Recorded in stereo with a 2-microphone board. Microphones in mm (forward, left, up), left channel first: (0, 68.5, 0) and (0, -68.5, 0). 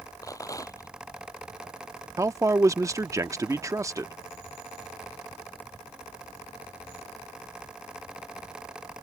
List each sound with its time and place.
0.2 s a rattle: 25° left (ahead or behind)
2.2 s a man speaking: 25° right (ahead or behind)